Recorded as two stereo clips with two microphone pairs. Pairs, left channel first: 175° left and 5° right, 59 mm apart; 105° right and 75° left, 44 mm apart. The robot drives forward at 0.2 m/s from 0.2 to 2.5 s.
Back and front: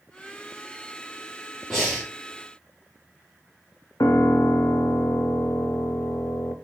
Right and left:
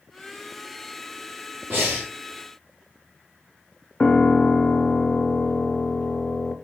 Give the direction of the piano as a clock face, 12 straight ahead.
6 o'clock.